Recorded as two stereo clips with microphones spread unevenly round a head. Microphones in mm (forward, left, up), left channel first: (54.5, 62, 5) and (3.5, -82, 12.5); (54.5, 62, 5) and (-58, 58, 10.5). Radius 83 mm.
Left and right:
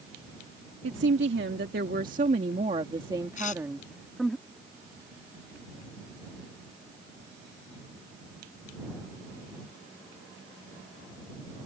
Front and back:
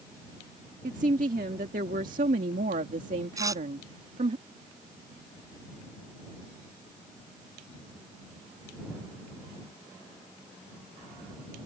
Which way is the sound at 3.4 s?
120° left.